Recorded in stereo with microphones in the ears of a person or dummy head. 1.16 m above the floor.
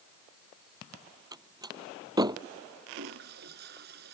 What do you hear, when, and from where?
1.3 s a door slam: 20° right (ahead or behind)
2.9 s a toilet flushing: 60° right (ahead or behind)